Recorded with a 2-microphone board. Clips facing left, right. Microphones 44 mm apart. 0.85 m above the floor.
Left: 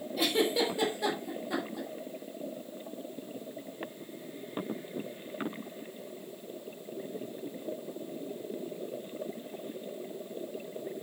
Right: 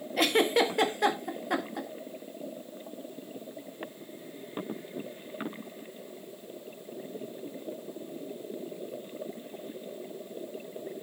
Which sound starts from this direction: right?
A giggle, at 0.2 s.